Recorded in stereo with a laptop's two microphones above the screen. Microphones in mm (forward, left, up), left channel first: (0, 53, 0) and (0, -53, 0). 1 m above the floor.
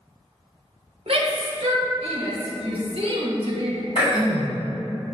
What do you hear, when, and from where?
1.1 s a shout: 60° right (ahead or behind), 0.8 m
4.0 s throat clearing: 60° left (ahead or behind), 1.7 m